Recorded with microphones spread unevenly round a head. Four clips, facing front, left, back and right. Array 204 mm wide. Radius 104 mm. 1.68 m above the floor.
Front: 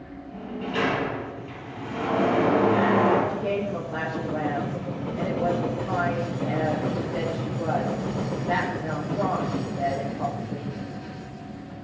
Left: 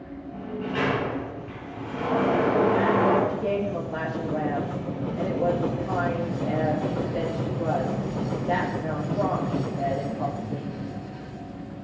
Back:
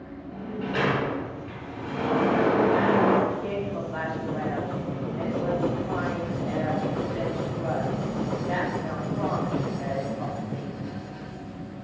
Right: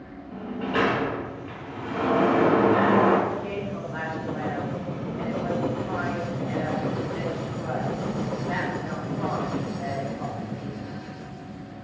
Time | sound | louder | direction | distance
0.3 | a sliding door | right 3 dB, even | 95° right | 6.5 m
3.3 | a woman speaking | left 4 dB, front 2 dB | 55° left | 2.5 m